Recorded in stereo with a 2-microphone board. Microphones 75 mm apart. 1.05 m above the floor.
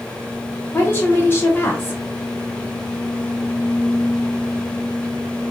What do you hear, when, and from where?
0.7 s a woman speaking: 30° left (ahead or behind), 0.9 m